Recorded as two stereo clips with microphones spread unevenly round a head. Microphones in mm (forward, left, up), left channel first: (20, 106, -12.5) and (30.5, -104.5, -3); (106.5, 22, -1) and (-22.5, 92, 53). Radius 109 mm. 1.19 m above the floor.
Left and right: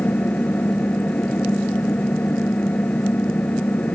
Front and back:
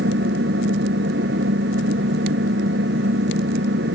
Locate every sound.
0.0 s an engine running: straight behind